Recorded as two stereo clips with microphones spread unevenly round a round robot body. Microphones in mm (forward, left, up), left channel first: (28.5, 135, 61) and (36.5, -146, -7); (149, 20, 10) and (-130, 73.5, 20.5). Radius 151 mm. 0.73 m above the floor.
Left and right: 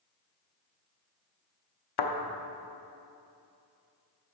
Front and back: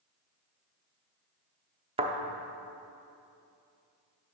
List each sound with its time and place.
2.0 s a thud: 100° left, 0.6 m